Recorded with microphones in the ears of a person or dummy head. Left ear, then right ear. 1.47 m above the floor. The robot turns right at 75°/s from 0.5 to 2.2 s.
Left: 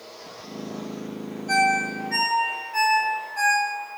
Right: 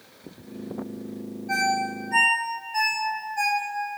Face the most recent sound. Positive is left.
turn(degrees=65)  # may be behind; listen again after turning